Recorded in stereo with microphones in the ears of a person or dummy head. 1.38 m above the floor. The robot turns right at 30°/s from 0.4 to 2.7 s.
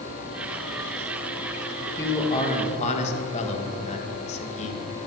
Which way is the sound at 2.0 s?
15° left (ahead or behind).